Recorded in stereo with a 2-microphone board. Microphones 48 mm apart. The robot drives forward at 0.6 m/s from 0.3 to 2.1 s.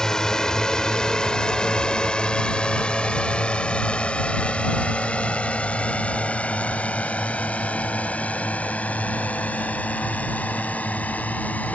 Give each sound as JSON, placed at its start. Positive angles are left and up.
{"t": 0.0, "sound": "a drone", "side_deg": 10}